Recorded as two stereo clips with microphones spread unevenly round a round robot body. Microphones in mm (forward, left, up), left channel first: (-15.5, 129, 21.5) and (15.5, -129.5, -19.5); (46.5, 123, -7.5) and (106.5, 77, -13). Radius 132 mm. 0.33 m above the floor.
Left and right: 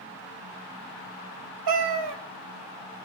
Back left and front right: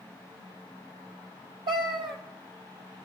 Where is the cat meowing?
65° right, 0.7 m.